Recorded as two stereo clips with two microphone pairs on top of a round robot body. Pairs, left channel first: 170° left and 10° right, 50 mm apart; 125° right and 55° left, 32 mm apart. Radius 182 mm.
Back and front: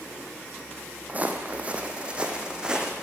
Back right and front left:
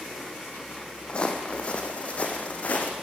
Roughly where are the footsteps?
Ahead right.